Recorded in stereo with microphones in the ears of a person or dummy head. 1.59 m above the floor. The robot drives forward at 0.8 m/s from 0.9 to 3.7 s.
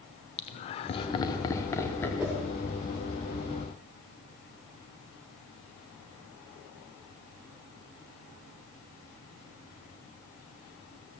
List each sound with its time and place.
0.4 s laughter: 30° left (ahead or behind), 0.8 m; by 2.1 s 15° left (ahead or behind), 1.7 m
2.2 s a whoosh: 5° right (ahead or behind), 1.4 m